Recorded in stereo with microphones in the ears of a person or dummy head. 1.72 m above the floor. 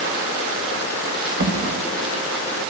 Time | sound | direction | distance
1.4 | a drawer | 80° right | 5 m